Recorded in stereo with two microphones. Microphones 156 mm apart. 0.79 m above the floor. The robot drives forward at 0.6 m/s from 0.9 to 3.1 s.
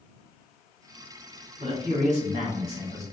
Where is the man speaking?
40° right (ahead or behind), 1.4 m; by 3.0 s 45° right (ahead or behind), 1.3 m.